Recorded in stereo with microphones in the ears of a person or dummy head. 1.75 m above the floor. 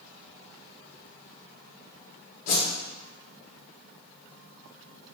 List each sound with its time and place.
2.5 s a whoosh: 45° left (ahead or behind), 0.7 m